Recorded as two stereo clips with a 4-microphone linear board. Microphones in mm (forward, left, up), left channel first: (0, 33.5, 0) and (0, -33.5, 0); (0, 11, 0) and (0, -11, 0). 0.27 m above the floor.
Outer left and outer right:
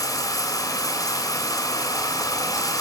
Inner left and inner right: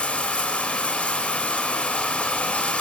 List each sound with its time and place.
0.0 s running water: 65° left (ahead or behind), 2.5 m